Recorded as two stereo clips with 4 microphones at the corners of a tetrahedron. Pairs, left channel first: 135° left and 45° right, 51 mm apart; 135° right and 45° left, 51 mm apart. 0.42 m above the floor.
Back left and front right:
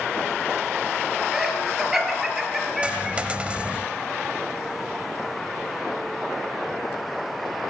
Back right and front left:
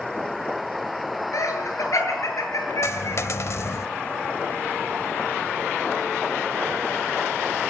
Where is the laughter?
125° right, 9 m.